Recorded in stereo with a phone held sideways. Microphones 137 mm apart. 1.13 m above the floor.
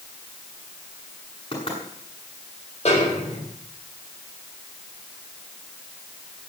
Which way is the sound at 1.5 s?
40° left (ahead or behind).